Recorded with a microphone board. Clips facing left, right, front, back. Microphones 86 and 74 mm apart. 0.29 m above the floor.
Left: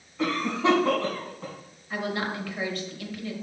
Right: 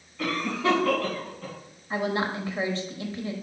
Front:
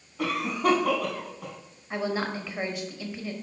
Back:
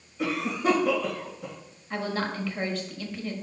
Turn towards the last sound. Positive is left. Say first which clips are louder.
# right 3 dB, front 1 dB
turn(degrees=-60)